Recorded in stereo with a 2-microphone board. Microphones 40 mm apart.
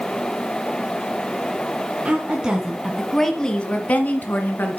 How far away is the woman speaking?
About 2.5 m.